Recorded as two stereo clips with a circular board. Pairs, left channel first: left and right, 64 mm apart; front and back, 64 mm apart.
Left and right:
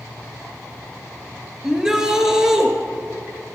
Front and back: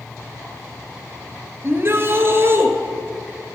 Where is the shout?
165° right, 1.5 m.